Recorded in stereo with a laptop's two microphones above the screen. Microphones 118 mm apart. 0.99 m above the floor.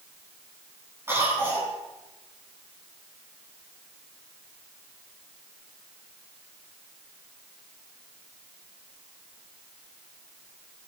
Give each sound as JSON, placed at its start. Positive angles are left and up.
{"t": 1.1, "sound": "a cough", "side_deg": -20, "distance_m": 9.5}